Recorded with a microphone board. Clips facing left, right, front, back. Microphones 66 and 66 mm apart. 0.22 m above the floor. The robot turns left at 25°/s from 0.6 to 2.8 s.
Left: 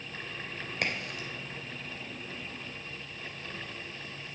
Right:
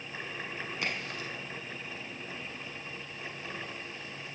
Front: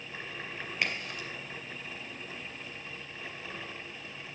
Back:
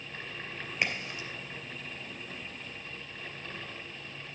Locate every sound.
0.8 s a crack: 95° left, 3 m; by 1.3 s 85° left, 3 m